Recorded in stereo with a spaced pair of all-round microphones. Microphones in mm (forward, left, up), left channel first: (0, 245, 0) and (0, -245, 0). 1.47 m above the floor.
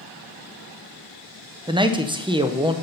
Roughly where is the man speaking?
Centre.